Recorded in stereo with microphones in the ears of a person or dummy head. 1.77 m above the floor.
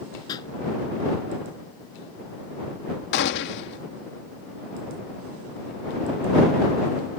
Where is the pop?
25° left (ahead or behind).